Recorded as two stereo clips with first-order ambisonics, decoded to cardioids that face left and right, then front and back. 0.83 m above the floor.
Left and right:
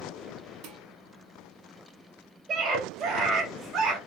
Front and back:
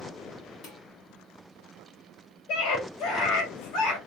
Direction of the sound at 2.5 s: 25° right.